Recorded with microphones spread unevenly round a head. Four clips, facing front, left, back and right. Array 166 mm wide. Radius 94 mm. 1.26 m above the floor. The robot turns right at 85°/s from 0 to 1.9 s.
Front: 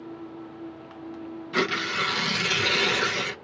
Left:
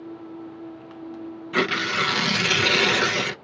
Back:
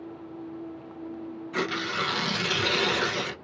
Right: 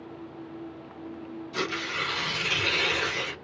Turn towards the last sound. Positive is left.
turn(degrees=80)